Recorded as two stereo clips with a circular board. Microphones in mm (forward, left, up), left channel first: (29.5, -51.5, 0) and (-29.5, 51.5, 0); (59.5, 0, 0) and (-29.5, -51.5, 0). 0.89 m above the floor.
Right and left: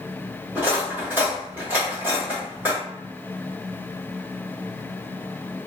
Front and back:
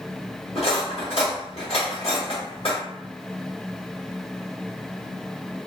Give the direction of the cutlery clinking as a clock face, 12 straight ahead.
10 o'clock.